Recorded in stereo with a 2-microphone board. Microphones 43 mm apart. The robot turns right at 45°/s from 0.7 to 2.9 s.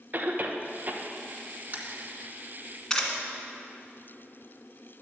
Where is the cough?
40° right (ahead or behind), 0.9 m.